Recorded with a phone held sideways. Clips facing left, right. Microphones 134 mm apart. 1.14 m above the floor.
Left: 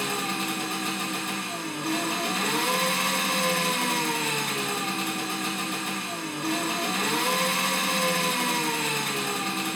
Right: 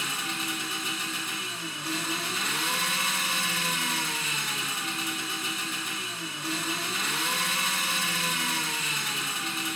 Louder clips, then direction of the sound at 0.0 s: Left 6 dB; 60° left (ahead or behind).